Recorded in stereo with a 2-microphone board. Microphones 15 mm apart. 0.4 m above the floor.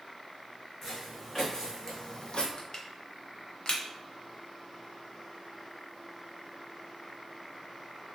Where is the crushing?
45° left (ahead or behind), 0.6 m.